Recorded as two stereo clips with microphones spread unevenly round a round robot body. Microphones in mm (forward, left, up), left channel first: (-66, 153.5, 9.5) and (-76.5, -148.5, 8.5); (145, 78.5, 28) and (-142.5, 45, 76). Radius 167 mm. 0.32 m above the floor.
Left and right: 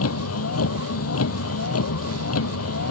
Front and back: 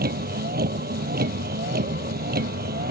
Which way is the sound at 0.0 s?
130° left.